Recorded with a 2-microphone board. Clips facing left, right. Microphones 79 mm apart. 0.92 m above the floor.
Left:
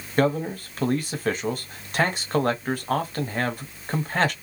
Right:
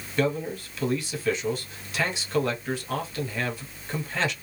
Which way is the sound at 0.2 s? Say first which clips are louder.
Left 4 dB; 45° left (ahead or behind).